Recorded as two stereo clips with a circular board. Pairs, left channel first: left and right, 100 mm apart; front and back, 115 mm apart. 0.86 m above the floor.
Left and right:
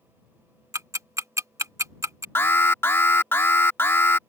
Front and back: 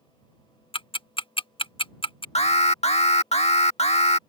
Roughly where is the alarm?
Ahead.